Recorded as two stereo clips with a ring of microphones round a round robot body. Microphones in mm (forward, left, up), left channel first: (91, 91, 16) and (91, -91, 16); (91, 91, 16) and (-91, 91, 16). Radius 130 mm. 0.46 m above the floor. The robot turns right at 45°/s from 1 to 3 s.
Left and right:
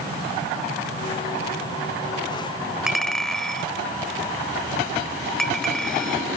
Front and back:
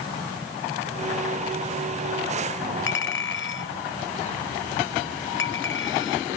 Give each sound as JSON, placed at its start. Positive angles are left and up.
{"t": 2.9, "sound": "a clink", "azimuth_deg": -5}